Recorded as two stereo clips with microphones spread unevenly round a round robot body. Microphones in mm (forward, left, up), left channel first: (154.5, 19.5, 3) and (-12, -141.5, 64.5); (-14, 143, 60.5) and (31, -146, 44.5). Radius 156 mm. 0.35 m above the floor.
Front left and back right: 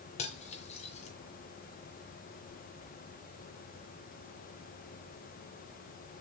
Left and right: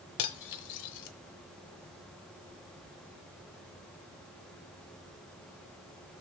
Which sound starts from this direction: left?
Cutlery clinking, at 0.2 s.